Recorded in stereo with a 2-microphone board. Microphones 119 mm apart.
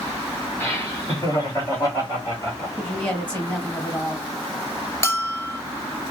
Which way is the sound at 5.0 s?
25° left (ahead or behind).